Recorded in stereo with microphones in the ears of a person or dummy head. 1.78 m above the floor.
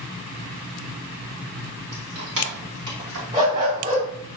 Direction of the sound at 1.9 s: 50° right (ahead or behind).